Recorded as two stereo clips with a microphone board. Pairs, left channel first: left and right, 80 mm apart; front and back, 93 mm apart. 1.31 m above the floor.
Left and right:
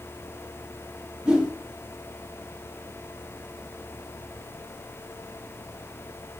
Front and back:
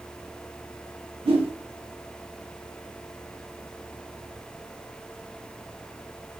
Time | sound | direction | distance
1.2 | a whoosh | 170° right | 1.0 m